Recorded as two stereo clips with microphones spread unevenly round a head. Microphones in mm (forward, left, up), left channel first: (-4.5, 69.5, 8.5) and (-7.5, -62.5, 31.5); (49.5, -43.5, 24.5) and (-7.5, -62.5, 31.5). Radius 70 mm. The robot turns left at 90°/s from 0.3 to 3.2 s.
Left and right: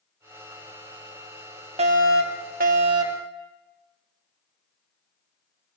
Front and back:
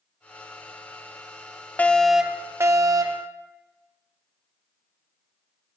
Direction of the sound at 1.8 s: 45° right.